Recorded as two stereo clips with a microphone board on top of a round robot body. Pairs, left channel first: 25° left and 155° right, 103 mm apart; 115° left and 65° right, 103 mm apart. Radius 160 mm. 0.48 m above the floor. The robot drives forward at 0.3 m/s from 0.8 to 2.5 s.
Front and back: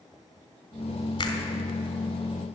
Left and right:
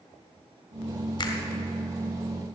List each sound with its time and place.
1.2 s a finger snap: 70° left, 2.5 m